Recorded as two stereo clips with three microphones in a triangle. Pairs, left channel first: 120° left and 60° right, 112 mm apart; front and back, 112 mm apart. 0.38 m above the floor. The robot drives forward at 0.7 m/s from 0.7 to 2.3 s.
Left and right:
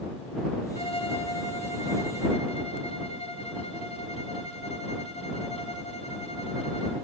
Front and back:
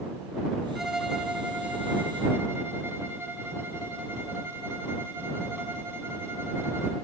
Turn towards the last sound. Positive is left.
turn(degrees=110)